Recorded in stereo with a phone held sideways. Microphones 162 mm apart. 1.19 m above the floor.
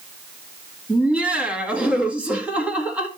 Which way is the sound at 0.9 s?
10° right (ahead or behind).